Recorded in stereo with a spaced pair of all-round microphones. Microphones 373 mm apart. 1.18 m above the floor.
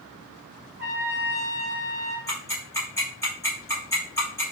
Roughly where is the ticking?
Centre.